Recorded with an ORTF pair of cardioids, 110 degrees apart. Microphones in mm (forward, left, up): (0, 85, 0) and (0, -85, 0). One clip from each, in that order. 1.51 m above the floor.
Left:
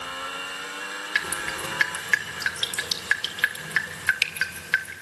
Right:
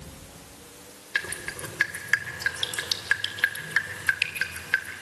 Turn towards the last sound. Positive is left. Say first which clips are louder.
# left 2 dB
turn(degrees=10)